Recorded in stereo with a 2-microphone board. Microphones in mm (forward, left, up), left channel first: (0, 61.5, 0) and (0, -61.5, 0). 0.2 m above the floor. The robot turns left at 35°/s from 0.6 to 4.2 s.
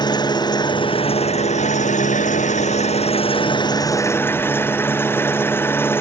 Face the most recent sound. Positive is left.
turn(degrees=20)